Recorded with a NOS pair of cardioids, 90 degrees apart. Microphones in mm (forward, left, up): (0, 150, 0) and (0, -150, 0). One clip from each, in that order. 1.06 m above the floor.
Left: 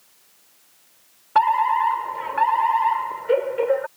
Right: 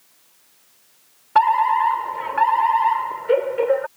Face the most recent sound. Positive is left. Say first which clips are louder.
# right 2 dB
turn(degrees=-10)